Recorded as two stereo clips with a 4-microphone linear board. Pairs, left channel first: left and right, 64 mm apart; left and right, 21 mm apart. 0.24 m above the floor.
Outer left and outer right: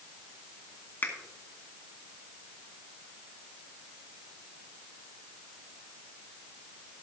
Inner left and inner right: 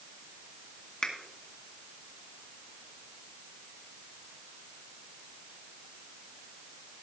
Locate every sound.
1.0 s a finger snap: 35° left (ahead or behind), 2 m